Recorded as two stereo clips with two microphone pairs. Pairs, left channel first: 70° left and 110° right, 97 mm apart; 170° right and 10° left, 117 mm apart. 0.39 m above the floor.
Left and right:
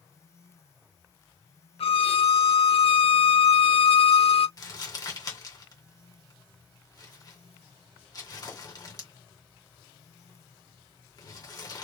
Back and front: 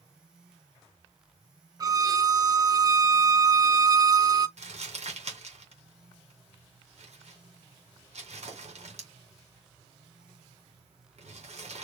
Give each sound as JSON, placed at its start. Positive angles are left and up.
{"t": 1.8, "sound": "a violin", "azimuth_deg": 65, "distance_m": 0.5}
{"t": 4.6, "sound": "crumpling", "azimuth_deg": 25, "distance_m": 2.5}